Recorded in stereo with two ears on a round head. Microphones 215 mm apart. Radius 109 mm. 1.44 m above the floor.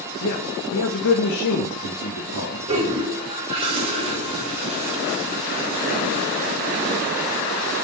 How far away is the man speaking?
About 1.7 m.